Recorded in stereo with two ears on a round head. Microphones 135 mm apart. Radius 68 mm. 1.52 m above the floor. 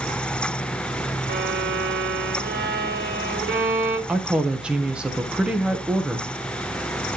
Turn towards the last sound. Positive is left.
turn(degrees=-5)  # may be behind; listen again after turning